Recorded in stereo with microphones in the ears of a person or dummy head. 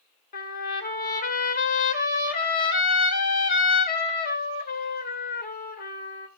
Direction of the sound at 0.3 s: 45° left (ahead or behind).